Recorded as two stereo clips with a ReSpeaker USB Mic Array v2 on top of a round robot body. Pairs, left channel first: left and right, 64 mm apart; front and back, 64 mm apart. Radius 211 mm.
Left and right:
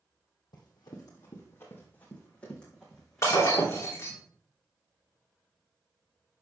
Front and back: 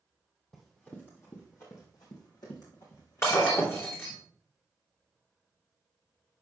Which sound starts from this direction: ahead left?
Breaking glass, at 3.2 s.